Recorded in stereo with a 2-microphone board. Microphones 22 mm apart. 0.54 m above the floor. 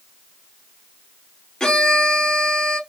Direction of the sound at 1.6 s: 30° left (ahead or behind).